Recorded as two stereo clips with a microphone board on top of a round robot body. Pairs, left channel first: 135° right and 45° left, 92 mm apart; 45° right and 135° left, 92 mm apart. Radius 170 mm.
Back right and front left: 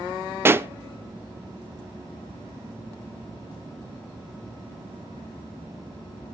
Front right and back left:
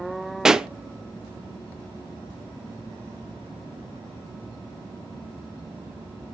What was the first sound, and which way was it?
A pop, 60° left.